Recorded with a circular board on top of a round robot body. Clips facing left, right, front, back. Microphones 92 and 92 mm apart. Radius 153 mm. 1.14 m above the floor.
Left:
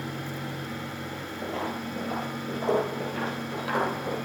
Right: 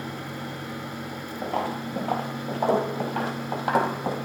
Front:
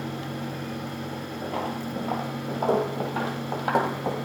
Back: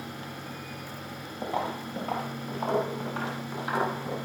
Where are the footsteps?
125° right, 1.2 m; by 4.2 s 35° right, 1.9 m.